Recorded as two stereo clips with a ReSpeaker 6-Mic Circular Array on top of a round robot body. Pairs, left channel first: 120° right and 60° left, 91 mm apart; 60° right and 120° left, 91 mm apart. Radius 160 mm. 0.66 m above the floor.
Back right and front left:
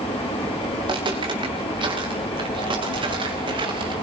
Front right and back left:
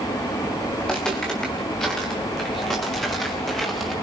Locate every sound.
0.8 s footsteps: 25° left, 8.5 m